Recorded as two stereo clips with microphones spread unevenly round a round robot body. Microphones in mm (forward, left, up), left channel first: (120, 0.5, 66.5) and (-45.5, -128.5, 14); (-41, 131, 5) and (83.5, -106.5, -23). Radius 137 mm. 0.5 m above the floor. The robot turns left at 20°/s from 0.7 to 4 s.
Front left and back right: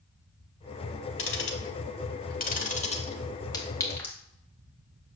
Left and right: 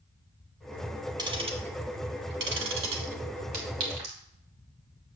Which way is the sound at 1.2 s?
15° left.